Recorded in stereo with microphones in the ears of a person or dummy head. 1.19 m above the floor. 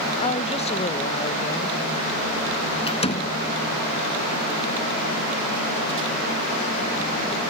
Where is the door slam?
25° left (ahead or behind).